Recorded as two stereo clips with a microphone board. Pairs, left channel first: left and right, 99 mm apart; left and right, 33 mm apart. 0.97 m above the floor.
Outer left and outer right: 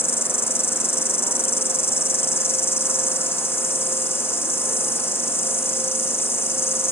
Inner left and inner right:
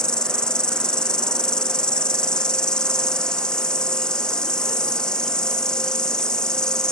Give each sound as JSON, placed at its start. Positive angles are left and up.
{"t": 0.0, "sound": "an insect", "side_deg": 25}